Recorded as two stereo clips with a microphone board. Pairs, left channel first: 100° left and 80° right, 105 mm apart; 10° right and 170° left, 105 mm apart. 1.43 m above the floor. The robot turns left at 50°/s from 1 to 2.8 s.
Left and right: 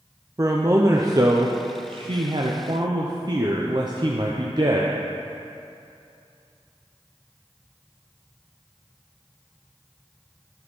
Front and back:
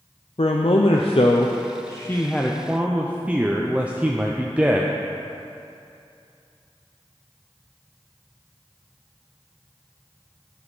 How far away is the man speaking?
About 0.5 m.